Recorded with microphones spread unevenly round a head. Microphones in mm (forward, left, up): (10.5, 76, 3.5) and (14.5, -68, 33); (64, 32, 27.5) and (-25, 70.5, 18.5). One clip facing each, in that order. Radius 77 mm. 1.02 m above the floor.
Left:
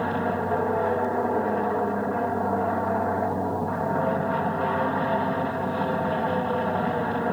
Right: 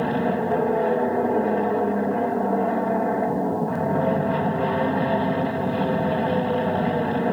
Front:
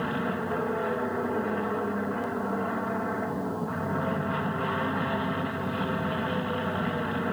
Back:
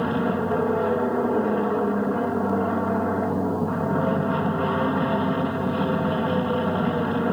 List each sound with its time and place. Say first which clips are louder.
0.0 s an aircraft: right 3 dB, back 6 dB; 155° right